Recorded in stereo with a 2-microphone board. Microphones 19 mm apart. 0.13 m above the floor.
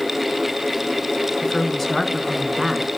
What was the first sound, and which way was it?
A woman speaking, 30° left (ahead or behind).